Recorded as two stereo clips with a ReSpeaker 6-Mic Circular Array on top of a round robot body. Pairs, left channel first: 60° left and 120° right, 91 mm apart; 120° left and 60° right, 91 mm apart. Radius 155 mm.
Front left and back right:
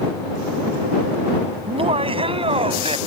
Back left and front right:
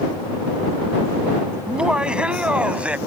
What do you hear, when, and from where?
1.7 s laughter: 140° right